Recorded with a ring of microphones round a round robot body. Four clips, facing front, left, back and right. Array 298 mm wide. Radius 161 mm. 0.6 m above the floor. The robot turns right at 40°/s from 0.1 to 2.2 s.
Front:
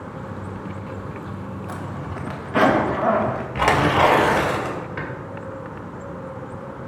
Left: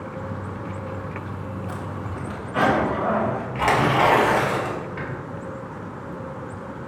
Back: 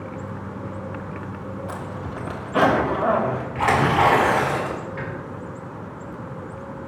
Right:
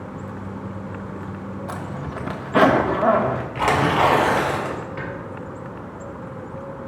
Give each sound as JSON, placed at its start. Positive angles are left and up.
{"t": 1.7, "sound": "a zipper", "azimuth_deg": -90, "distance_m": 1.5}
{"t": 3.5, "sound": "tearing paper", "azimuth_deg": -5, "distance_m": 2.5}